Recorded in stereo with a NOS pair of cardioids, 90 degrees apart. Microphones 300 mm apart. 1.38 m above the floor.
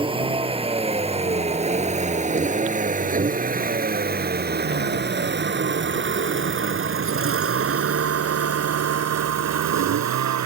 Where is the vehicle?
15° right; by 10.4 s 65° right.